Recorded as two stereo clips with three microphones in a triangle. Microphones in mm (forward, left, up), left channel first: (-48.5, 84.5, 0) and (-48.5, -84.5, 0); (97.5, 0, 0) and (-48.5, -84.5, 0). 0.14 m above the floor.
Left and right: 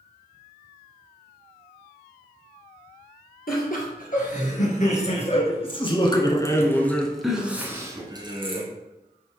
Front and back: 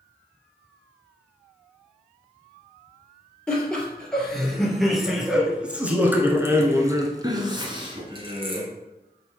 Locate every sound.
3.5 s laughter: 115° left, 2.5 m; by 8.6 s 120° right, 1.4 m